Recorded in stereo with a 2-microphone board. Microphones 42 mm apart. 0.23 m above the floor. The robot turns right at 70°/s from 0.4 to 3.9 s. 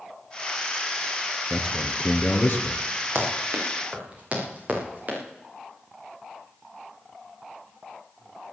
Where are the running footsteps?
75° right (ahead or behind), 6.5 m; by 5.2 s 40° right (ahead or behind), 7 m.